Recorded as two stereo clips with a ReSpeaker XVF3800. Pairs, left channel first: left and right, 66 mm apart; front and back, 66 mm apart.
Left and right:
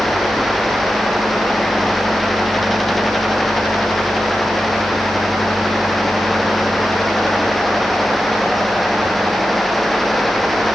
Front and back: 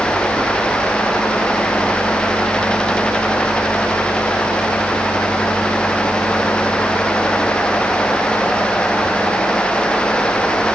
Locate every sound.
Only background noise.